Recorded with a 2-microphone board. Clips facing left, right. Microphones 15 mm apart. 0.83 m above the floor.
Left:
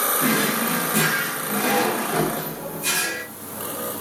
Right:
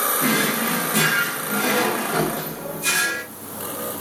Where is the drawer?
30° right (ahead or behind), 1.0 m.